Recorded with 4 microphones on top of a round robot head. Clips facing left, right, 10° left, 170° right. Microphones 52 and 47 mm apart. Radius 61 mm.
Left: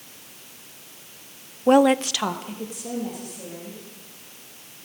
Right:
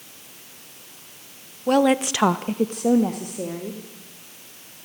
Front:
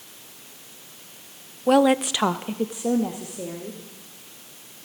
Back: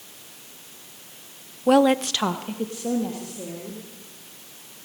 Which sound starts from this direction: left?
A woman speaking, at 1.7 s.